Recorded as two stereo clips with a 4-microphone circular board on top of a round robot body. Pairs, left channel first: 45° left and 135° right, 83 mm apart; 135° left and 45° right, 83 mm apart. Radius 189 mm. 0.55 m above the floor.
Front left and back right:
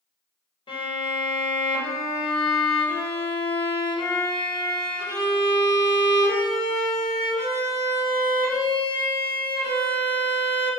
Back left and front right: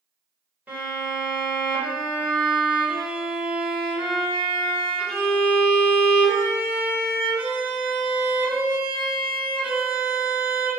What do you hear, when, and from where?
0.7 s a violin: 30° left, 1.1 m